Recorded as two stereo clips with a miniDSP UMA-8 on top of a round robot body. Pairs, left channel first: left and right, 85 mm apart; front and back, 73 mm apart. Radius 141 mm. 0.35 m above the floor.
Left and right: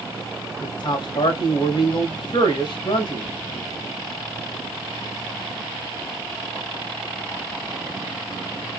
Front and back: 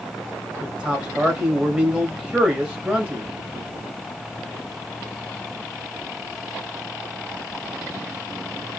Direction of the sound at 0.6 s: 110° left.